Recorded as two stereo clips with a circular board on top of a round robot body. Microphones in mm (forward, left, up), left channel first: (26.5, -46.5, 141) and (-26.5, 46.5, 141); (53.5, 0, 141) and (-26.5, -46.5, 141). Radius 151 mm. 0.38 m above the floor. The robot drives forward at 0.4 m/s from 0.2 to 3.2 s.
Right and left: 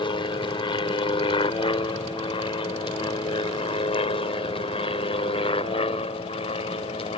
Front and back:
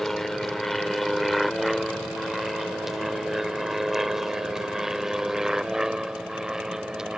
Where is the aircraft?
55° right; by 7.2 s 70° right.